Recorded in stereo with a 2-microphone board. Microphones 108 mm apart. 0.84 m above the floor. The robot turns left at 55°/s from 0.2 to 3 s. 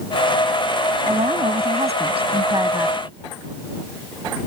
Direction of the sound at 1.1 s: 55° right.